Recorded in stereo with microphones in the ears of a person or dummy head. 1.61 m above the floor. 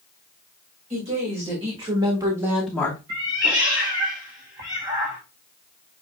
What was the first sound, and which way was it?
A woman speaking, 35° right (ahead or behind).